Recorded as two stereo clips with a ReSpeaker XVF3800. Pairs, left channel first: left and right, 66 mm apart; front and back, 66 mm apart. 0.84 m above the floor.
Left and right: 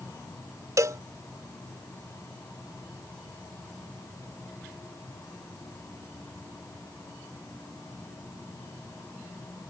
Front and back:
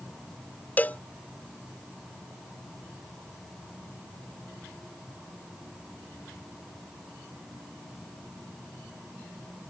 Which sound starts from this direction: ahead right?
A cowbell, at 0.8 s.